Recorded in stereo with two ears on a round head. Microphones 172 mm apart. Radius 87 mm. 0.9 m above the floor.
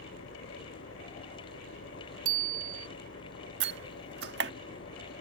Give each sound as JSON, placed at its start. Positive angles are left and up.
{"t": 0.0, "sound": "an engine running", "side_deg": 80}
{"t": 2.2, "sound": "a bicycle bell", "side_deg": -50}
{"t": 3.6, "sound": "a door slam", "side_deg": -60}